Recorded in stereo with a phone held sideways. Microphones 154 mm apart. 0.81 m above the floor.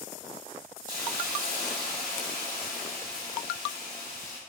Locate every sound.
0.9 s a hiss: 60° right (ahead or behind), 1.1 m